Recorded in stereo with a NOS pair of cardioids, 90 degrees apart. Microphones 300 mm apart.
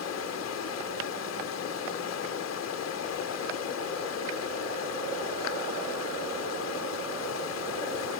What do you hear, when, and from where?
0.0 s running water: 60° left